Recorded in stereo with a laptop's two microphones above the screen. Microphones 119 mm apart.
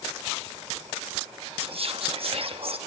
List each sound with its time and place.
1.6 s whispering: 50° right (ahead or behind), 1.0 m